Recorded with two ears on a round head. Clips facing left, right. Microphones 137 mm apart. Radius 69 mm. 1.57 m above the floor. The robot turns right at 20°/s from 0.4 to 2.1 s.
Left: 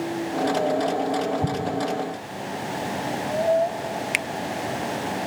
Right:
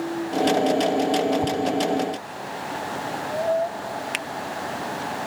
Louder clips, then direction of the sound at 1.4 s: Right 3 dB; 30° left (ahead or behind).